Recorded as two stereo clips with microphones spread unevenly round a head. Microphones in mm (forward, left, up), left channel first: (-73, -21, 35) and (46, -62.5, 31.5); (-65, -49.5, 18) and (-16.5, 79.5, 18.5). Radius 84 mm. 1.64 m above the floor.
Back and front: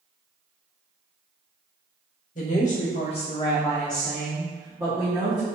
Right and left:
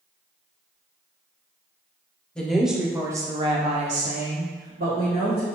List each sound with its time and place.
2.4 s a woman speaking: 165° left, 0.8 m; by 5.5 s 45° left, 1.2 m